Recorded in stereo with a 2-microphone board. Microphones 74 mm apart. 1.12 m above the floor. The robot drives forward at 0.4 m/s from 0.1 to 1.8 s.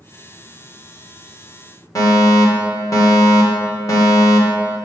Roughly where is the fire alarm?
Left.